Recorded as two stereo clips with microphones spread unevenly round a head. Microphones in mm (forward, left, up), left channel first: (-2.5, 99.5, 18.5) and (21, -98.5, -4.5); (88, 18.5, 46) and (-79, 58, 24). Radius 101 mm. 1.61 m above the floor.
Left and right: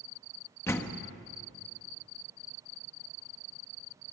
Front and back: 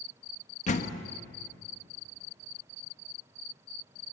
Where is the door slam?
25° left, 1.4 m.